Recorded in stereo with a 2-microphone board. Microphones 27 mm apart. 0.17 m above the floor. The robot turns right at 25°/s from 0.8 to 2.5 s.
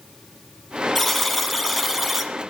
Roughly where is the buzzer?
Centre.